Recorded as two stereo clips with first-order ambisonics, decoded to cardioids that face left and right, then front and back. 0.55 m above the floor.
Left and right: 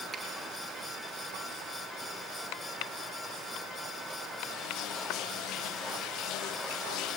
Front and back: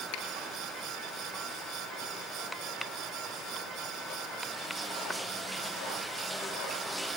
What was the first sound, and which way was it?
A finger snap, 10° right.